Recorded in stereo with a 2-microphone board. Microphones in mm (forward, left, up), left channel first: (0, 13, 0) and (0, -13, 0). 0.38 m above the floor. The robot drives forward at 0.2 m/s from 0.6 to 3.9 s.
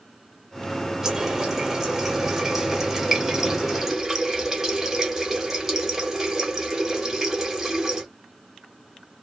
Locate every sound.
1.0 s a running tap: 25° right (ahead or behind), 0.8 m; by 8.1 s 20° right (ahead or behind), 0.9 m